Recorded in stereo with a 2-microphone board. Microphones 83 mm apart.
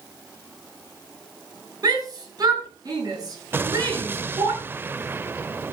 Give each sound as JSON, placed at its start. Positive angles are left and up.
{"t": 1.8, "sound": "a shout", "side_deg": -55, "distance_m": 7.0}
{"t": 3.5, "sound": "an explosion", "side_deg": -25, "distance_m": 0.5}